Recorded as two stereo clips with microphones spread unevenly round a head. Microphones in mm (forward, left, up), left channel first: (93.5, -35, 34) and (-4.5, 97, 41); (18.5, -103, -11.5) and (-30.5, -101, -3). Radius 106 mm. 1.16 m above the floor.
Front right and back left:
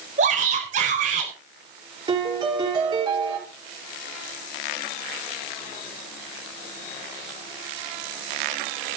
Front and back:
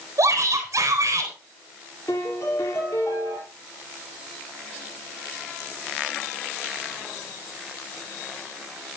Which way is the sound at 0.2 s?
Straight behind.